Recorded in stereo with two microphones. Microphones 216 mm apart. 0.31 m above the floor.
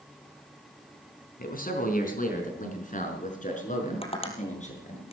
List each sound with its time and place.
1.4 s a man speaking: 45° left (ahead or behind), 4 m; by 5.0 s 35° left (ahead or behind), 6.5 m
4.0 s tapping: 25° left (ahead or behind), 2.5 m